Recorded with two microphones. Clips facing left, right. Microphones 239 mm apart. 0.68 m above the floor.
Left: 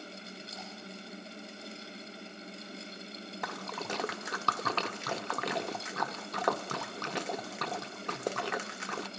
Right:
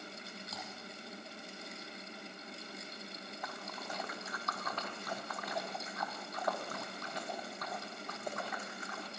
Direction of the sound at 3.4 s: 85° left.